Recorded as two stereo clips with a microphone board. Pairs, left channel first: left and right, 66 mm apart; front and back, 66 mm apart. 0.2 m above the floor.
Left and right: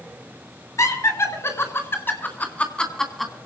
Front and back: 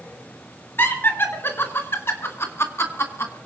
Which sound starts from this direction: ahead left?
Laughter, at 0.8 s.